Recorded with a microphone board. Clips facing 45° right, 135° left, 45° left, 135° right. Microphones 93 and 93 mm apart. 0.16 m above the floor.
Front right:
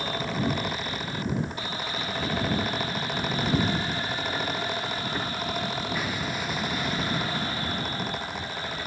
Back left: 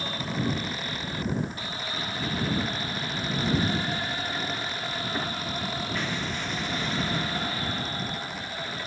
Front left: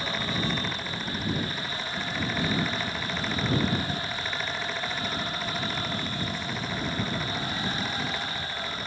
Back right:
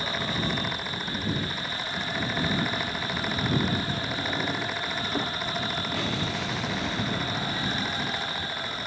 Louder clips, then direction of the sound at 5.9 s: Front right 1 dB, back right 3 dB; 130° right.